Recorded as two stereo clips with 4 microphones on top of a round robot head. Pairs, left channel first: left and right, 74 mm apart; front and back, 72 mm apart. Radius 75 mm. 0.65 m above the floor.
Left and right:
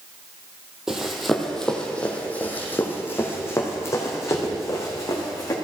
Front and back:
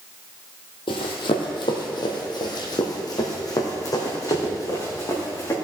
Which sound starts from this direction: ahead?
Running footsteps, at 0.9 s.